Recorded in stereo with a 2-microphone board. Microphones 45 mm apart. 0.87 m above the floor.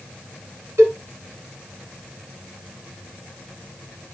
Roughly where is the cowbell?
Right.